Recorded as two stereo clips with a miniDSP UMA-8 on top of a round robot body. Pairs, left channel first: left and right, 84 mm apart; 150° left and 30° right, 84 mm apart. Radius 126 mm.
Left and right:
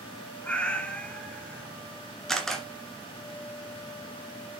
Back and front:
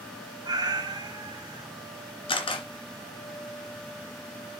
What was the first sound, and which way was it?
A cat meowing, 10° left.